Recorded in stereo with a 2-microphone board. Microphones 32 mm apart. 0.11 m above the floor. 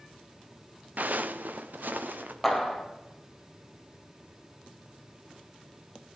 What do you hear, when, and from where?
1.0 s footsteps: 65° right (ahead or behind), 0.7 m; by 2.3 s 75° right (ahead or behind), 1.8 m
2.4 s a clap: 10° left (ahead or behind), 2 m